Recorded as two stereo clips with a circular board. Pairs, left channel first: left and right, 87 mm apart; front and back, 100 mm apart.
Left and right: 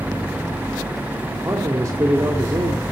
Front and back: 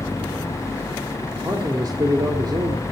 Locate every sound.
1.4 s a man speaking: 135° right, 1.7 m